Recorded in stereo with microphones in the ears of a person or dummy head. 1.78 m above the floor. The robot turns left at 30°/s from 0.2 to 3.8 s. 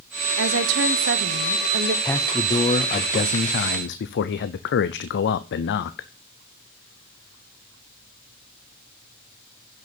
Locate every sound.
0.4 s a woman speaking: 85° right, 1.0 m; by 1.9 s 135° right, 1.0 m
2.0 s a man speaking: 170° left, 0.6 m; by 6.1 s 120° left, 0.6 m